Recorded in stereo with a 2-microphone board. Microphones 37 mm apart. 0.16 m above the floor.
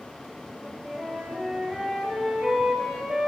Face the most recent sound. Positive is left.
turn(degrees=-10)  # may be behind; listen again after turning